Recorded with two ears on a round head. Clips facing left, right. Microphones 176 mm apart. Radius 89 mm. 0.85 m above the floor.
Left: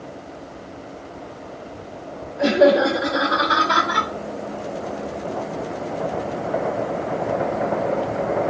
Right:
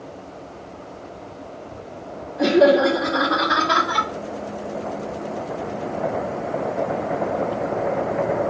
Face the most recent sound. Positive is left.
turn(degrees=-35)  # may be behind; listen again after turning